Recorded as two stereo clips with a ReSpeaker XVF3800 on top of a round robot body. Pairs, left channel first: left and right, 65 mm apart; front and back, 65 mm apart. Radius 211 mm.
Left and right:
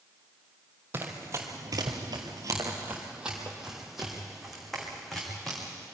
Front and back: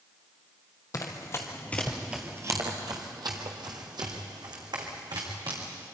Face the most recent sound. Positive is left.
turn(degrees=175)